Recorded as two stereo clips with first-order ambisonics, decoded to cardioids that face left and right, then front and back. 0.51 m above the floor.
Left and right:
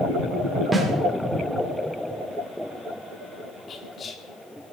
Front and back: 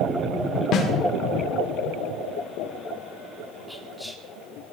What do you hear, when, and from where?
0.7 s a snare drum: 20° right, 1.5 m
3.7 s whispering: 90° left, 1.1 m